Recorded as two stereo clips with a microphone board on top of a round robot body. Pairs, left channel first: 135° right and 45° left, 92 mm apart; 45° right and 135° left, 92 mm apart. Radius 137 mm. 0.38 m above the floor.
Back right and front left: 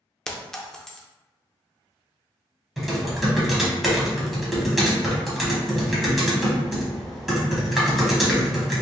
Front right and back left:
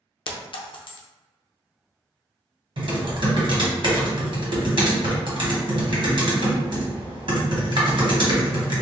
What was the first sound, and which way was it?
A clink, 50° right.